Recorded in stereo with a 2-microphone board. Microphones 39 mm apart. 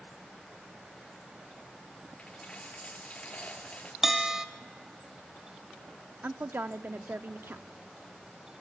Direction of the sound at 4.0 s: 10° right (ahead or behind).